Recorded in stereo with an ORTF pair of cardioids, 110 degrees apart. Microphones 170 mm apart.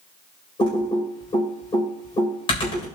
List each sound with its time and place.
0.6 s typing on a keyboard: 30° left, 4 m